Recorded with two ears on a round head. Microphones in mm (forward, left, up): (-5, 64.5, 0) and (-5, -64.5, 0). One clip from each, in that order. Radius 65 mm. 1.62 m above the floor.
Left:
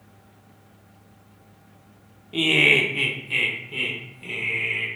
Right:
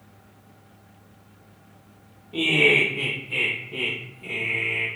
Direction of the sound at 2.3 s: 35° left (ahead or behind).